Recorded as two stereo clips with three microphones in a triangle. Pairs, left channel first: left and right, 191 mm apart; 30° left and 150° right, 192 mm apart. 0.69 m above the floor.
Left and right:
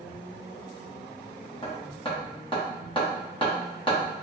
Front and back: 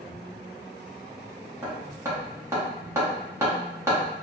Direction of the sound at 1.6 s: 140° left.